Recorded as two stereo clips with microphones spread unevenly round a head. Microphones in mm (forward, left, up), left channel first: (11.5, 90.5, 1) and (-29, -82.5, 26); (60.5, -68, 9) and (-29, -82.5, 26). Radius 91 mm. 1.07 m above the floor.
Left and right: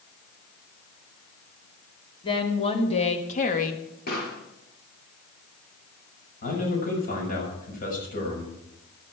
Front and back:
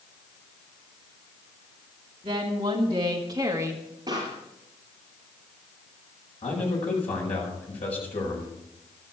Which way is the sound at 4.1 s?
120° left.